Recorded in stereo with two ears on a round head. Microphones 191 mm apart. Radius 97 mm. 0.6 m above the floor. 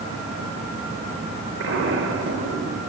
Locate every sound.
1.6 s an explosion: 65° right (ahead or behind), 2.5 m